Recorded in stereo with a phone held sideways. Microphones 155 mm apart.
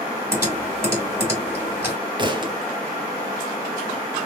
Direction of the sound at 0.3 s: 15° right (ahead or behind).